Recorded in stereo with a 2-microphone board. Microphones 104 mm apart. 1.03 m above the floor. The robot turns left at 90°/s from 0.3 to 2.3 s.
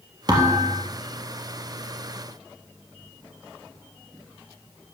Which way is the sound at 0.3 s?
130° right.